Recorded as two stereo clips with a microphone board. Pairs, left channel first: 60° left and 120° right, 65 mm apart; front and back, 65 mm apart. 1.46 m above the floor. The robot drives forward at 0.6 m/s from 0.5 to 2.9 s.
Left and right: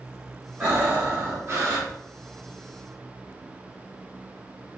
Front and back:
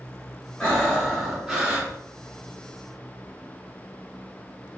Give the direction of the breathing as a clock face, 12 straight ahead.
2 o'clock.